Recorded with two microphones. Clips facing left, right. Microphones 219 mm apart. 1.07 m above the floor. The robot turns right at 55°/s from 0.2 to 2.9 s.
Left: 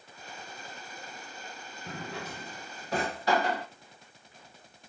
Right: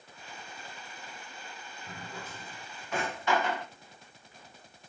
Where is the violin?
I don't hear a violin.